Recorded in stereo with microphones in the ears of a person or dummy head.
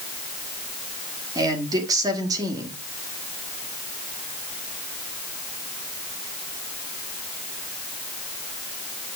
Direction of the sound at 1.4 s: 30° right (ahead or behind).